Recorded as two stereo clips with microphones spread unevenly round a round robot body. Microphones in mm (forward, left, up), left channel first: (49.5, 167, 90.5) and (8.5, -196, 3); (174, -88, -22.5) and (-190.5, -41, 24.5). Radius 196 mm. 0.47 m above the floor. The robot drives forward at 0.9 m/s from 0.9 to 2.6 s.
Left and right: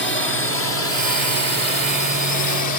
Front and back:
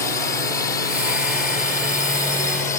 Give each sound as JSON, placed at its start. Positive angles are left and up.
{"t": 0.0, "sound": "a drone", "azimuth_deg": 40}